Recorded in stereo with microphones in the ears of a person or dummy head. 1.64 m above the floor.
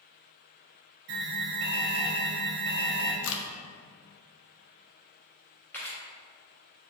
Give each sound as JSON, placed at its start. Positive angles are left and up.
{"t": 1.1, "sound": "an alarm", "side_deg": -65, "distance_m": 0.8}
{"t": 3.2, "sound": "a crack", "side_deg": 75, "distance_m": 0.5}
{"t": 5.7, "sound": "a camera shutter", "side_deg": 10, "distance_m": 0.8}